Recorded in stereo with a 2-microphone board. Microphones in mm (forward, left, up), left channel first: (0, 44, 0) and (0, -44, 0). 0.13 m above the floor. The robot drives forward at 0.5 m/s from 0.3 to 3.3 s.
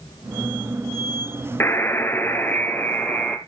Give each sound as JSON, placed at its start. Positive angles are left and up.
{"t": 1.6, "sound": "a buzzer", "side_deg": 25, "distance_m": 1.0}